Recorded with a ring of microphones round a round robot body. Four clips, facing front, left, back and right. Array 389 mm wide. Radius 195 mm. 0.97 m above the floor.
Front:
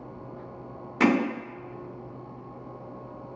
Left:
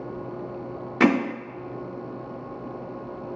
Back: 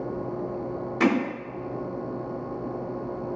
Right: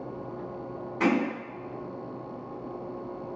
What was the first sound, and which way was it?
Hammering, 85° left.